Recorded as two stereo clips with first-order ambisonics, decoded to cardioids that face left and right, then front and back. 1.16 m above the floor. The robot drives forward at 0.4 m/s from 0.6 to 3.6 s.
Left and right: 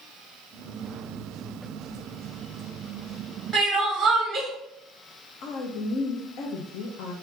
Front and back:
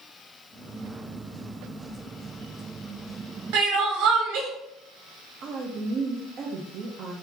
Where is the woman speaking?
130° left, 0.7 m.